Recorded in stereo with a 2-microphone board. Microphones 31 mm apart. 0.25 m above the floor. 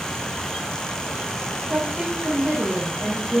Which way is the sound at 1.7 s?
40° right (ahead or behind).